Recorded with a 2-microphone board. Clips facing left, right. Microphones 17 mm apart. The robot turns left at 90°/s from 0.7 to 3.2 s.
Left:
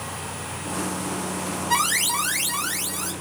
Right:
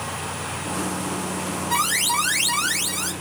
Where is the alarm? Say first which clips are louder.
Even; 15° left, 2 m; by 3.1 s 115° right, 2 m.